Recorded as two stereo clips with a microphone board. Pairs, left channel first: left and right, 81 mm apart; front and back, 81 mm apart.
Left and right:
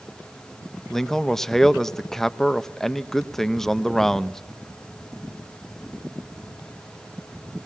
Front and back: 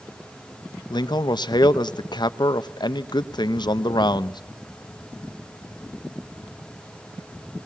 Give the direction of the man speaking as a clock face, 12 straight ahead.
12 o'clock.